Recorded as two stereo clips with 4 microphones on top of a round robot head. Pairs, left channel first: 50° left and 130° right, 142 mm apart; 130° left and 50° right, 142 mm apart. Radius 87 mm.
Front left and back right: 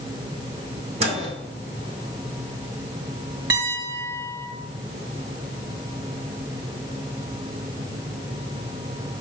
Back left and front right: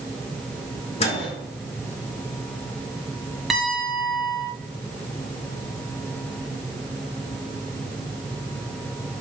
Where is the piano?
135° right, 1.9 m.